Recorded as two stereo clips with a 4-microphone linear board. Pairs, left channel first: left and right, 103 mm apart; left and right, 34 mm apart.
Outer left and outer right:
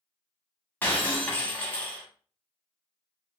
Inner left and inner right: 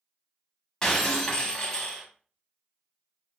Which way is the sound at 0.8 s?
15° left (ahead or behind).